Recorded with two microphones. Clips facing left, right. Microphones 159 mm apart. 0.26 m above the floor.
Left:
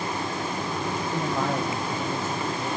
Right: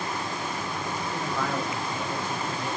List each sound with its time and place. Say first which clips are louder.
1.1 s a man speaking: left 3 dB; 35° left (ahead or behind), 1.4 m; by 2.7 s centre (ahead or behind), 2.0 m